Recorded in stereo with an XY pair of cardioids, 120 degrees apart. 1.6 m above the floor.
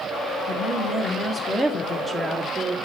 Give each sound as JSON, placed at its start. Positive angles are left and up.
{"t": 0.5, "sound": "a woman speaking", "azimuth_deg": 20, "distance_m": 2.0}